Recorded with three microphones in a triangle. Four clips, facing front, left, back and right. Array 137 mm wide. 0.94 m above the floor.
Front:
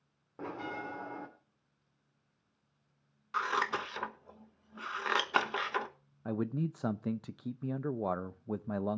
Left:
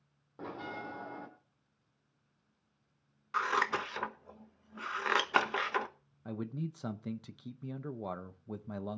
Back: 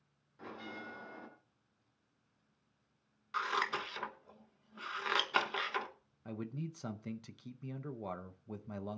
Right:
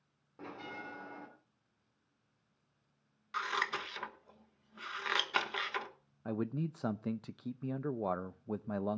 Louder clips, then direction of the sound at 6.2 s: Right 3 dB, front 8 dB; 35° right.